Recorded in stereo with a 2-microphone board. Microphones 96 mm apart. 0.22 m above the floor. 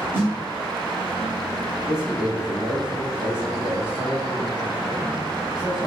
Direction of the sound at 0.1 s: 25° right (ahead or behind).